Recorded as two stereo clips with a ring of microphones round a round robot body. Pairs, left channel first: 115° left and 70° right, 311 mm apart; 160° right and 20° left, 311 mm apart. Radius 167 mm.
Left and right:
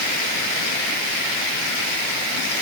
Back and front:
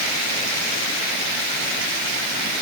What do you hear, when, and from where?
Only background noise.